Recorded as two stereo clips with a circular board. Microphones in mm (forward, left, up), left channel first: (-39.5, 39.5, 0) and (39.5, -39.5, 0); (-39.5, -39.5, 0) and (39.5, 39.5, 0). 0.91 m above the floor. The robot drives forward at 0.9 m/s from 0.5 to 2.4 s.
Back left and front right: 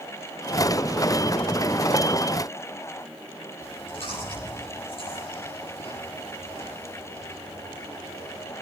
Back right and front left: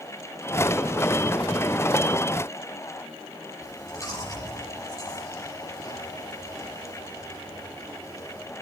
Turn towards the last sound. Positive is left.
turn(degrees=165)